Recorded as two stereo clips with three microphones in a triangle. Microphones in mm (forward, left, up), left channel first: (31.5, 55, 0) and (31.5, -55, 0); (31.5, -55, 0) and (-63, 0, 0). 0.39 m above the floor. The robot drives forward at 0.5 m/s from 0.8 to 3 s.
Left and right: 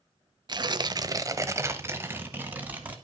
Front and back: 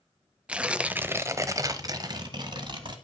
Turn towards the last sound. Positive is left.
turn(degrees=-165)